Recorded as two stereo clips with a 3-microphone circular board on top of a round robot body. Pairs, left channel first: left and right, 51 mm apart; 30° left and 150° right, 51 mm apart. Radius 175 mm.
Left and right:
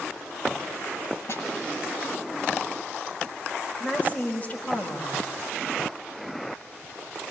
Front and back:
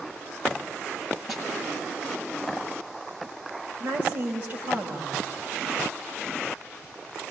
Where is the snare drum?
120° left, 8.5 m.